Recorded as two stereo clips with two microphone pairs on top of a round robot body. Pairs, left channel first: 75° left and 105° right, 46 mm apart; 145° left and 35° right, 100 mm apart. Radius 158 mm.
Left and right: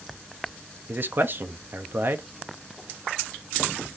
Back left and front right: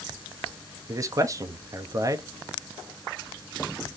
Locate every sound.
0.9 s a man speaking: 85° right, 0.8 m